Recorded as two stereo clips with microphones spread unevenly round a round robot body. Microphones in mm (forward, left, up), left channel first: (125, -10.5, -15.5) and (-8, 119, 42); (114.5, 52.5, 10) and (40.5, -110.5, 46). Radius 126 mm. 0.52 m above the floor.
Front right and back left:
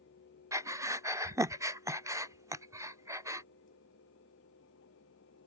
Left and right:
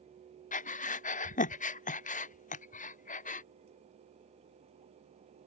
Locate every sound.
0.5 s breathing: 50° left